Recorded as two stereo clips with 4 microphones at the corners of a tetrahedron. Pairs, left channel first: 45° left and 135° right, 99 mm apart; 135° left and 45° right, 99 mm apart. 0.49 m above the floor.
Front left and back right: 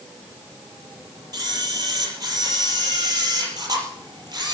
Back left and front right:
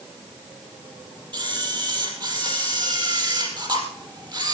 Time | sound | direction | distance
1.3 | a camera shutter | 85° right | 5 m